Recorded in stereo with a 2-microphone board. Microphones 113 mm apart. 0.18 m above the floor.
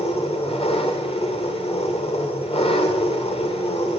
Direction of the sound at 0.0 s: 60° left (ahead or behind).